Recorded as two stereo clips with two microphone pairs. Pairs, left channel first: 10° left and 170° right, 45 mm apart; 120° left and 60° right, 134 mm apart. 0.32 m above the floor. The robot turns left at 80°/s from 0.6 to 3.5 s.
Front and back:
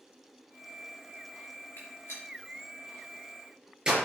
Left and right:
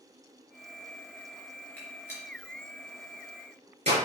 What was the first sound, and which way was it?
A gunshot, 40° left.